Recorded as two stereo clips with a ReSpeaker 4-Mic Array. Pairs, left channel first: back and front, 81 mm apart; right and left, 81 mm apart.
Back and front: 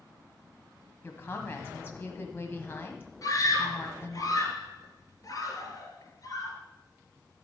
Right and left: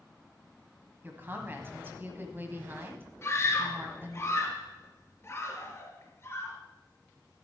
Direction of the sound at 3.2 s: 140° right.